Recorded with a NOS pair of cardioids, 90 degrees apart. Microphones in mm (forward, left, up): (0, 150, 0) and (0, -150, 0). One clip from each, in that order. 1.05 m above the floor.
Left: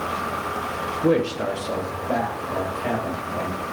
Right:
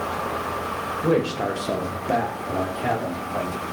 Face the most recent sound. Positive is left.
turn(degrees=-70)